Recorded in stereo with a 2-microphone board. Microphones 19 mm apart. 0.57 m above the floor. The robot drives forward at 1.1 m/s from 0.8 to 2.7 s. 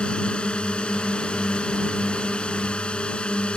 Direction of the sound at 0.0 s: 70° left (ahead or behind).